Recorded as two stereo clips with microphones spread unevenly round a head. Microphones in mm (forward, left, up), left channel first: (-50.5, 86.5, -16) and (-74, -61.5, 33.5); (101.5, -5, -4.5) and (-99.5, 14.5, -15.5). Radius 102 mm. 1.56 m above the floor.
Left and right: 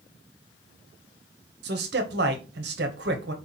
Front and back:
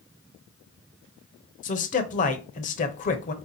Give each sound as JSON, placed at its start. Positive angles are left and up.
{"t": 1.6, "sound": "a man speaking", "azimuth_deg": -60, "distance_m": 0.8}